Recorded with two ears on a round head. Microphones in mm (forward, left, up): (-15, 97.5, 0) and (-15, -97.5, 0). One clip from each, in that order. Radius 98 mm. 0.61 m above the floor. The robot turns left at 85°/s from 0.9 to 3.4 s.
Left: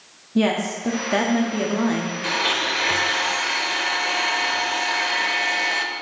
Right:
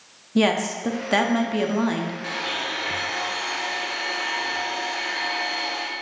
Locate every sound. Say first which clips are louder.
0.3 s a woman speaking: right 1 dB; 25° right (ahead or behind), 0.6 m; by 2.1 s centre (ahead or behind), 0.6 m
2.2 s a blender: left 8 dB; 145° left, 0.7 m; by 5.8 s 45° left, 0.7 m